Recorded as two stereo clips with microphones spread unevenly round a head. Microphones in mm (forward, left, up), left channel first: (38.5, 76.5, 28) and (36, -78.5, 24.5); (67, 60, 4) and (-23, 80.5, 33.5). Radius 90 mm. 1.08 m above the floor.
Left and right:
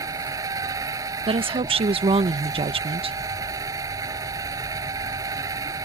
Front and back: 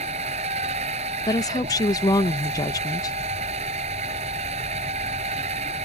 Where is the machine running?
165° right.